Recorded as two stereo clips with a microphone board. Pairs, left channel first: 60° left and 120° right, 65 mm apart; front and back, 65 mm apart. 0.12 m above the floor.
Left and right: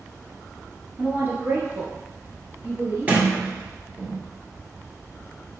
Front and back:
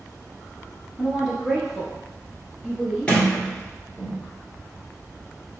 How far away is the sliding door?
About 1.3 m.